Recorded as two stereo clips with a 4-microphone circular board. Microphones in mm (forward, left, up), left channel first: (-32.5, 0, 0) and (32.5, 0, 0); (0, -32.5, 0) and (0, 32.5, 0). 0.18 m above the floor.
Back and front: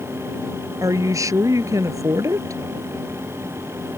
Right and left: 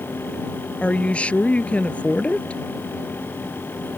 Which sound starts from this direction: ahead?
A woman speaking, at 0.8 s.